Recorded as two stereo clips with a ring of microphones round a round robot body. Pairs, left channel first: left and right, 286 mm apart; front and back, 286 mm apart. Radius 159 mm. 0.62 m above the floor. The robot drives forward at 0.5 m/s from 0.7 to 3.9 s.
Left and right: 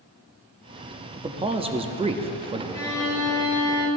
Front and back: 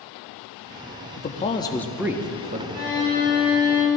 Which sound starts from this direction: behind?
A violin, at 2.7 s.